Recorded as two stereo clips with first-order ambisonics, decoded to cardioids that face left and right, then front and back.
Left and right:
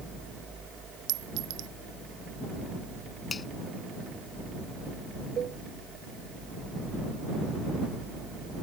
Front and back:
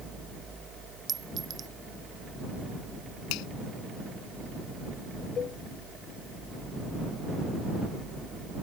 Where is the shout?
No shout in this recording.